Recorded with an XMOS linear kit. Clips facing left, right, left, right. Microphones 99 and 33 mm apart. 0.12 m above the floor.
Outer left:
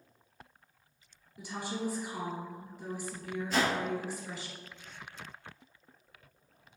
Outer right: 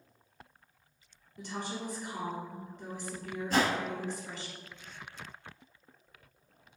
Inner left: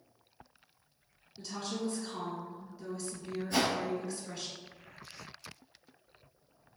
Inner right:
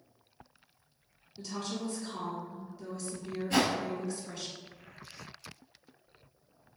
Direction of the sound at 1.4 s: 5° left (ahead or behind).